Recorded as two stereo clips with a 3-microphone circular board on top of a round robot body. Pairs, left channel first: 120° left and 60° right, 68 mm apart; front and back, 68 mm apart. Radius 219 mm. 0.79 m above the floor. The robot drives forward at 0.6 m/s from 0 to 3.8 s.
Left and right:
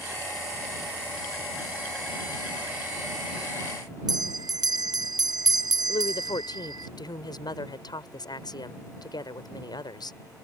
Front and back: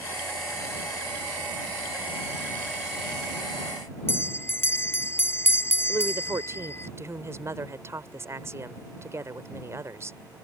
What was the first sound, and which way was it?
A bell, 55° right.